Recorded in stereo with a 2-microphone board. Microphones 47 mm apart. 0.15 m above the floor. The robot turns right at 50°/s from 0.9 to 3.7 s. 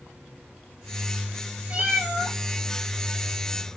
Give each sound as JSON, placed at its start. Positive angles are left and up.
{"t": 1.7, "sound": "a cat meowing", "azimuth_deg": -40, "distance_m": 1.4}